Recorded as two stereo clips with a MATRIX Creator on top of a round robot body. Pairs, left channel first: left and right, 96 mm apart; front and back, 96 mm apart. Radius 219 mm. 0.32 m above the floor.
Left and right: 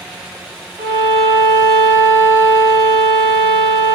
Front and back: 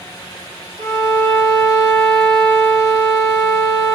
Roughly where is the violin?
Behind right.